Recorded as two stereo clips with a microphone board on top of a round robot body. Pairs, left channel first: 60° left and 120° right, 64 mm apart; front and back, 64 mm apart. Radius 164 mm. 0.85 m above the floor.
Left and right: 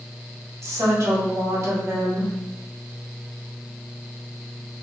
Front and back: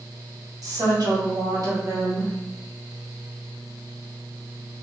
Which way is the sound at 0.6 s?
160° right.